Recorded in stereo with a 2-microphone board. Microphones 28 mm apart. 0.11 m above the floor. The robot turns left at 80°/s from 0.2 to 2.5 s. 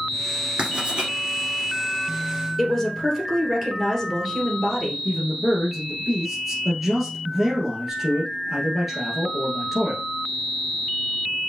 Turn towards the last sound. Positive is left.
turn(degrees=-5)  # may be behind; listen again after turning